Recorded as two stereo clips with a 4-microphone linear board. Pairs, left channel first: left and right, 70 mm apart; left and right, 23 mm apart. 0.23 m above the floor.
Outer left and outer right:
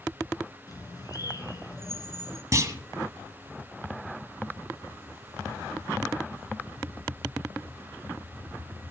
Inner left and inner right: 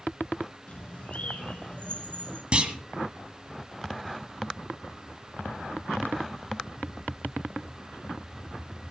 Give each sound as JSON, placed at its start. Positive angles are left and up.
{"t": 0.7, "sound": "a bird", "side_deg": 65, "distance_m": 2.0}
{"t": 2.5, "sound": "a clunk", "side_deg": -45, "distance_m": 1.6}